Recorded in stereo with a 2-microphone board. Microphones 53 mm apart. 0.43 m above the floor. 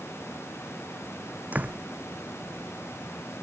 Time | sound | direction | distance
1.5 | a door slam | 30° right (ahead or behind) | ?